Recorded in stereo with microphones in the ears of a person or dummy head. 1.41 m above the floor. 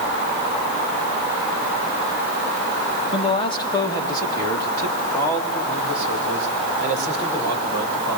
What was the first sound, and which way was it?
A man speaking, 25° left (ahead or behind).